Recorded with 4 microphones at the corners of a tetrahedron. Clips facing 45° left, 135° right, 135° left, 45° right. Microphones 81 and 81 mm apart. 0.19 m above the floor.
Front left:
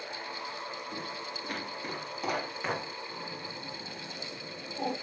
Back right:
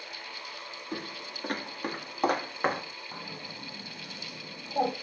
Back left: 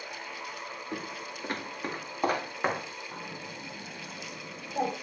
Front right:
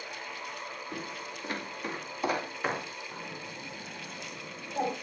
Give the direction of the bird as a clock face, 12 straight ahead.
5 o'clock.